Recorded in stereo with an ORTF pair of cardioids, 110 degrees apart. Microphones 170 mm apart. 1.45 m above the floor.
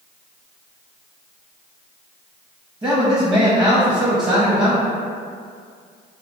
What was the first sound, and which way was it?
A man speaking, 25° right.